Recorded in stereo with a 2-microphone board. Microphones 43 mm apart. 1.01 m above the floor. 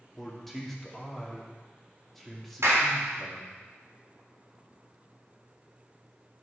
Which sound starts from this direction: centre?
A man speaking, at 0.2 s.